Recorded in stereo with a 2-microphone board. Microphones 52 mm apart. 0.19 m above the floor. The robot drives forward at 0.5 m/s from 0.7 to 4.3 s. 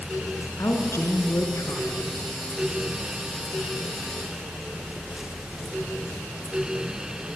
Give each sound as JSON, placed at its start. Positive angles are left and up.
{"t": 0.6, "sound": "a woman speaking", "side_deg": 60, "distance_m": 2.5}